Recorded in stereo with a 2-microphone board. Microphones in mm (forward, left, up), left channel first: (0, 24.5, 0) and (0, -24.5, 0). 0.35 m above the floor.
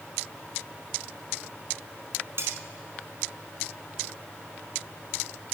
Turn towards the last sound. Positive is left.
turn(degrees=-60)  # may be behind; listen again after turning